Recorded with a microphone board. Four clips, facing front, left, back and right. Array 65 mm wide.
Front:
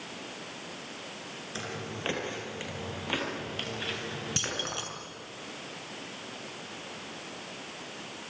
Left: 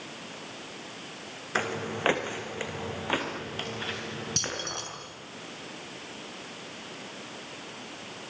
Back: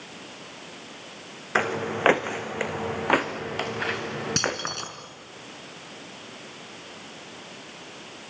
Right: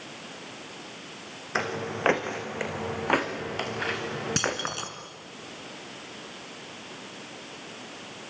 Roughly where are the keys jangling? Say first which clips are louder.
Right 6 dB, back 6 dB; behind right.